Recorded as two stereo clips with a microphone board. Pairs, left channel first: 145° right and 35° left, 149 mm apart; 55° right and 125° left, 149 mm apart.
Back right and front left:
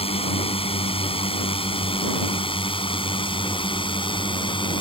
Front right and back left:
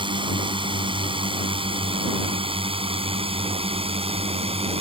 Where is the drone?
175° left; by 4.8 s 165° left.